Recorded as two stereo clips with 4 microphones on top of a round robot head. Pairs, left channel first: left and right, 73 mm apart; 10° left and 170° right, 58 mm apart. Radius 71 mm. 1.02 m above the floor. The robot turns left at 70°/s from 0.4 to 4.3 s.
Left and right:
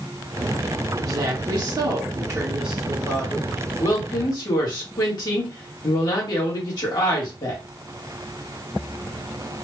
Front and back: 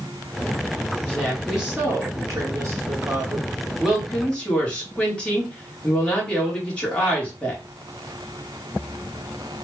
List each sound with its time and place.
1.0 s a woman speaking: 45° right, 2 m; by 7.6 s 80° left, 2 m